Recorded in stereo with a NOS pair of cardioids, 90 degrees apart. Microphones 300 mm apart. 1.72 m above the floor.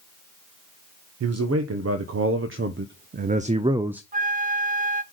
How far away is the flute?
About 0.7 m.